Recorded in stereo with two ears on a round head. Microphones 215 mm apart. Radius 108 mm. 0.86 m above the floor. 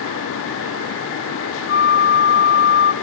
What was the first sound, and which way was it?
A flute, 50° left (ahead or behind).